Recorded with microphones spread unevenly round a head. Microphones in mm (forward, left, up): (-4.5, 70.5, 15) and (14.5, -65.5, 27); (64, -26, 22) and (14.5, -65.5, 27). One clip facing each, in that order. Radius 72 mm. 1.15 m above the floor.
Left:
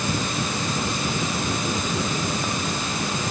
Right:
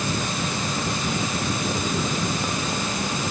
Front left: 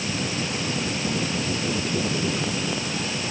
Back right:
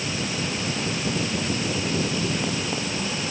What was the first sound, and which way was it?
Only background noise.